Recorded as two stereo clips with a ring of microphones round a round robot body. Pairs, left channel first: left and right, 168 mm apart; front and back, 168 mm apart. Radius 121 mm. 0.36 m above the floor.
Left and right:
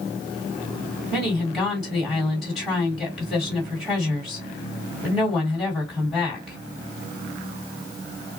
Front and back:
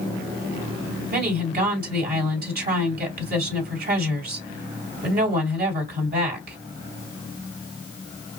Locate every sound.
1.1 s a woman speaking: straight behind, 2.5 m